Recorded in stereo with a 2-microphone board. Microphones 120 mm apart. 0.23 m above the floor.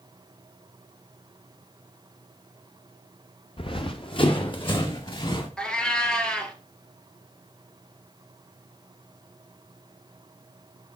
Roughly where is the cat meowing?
Centre.